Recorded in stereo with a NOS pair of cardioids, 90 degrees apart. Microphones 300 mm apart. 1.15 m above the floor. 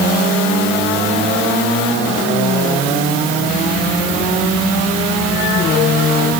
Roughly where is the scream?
I don't hear a scream.